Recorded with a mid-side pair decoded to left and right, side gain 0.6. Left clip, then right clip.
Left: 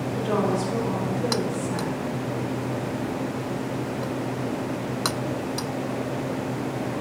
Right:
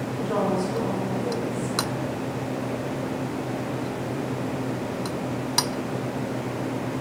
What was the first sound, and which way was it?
A woman speaking, 60° left.